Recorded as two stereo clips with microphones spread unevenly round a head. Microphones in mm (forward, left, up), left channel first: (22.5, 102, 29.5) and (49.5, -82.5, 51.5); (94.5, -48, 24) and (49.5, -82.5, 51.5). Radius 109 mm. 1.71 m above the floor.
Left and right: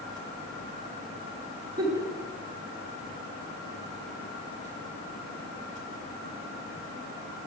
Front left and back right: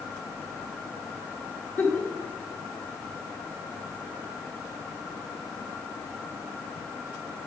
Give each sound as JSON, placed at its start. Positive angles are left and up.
{"t": 1.8, "sound": "a giggle", "azimuth_deg": -10, "distance_m": 1.5}